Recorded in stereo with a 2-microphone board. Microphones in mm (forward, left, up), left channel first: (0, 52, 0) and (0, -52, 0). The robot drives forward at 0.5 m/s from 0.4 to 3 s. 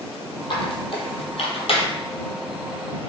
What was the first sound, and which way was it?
A squeak, 55° left (ahead or behind).